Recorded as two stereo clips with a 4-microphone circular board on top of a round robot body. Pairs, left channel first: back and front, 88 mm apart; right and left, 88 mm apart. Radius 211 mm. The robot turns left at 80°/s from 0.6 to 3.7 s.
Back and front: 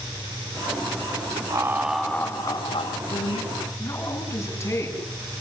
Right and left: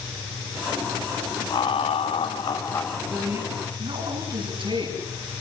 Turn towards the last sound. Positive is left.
turn(degrees=120)